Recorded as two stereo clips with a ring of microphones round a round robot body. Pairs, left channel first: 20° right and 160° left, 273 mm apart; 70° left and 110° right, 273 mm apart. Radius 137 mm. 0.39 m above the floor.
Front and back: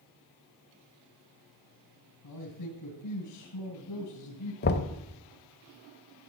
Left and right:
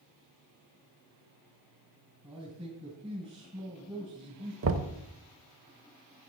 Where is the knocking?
75° right, 1.0 m.